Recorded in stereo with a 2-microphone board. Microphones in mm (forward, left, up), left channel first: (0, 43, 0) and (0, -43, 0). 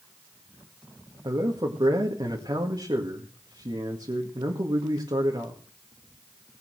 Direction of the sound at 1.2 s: 55° right (ahead or behind).